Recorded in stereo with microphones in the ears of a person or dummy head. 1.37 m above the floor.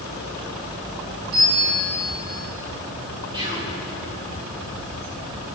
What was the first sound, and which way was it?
A bell, 50° right (ahead or behind).